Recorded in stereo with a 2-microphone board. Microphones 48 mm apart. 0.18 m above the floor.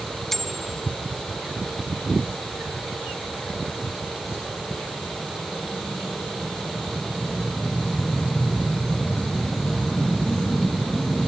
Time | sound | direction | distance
0.3 | a bicycle bell | 5° left (ahead or behind) | ?